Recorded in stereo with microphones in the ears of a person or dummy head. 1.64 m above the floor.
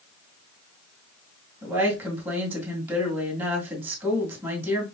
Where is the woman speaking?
15° right (ahead or behind), 2 m.